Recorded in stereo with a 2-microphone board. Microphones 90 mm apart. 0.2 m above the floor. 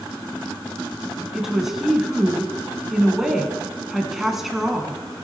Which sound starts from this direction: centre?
A woman speaking, at 1.3 s.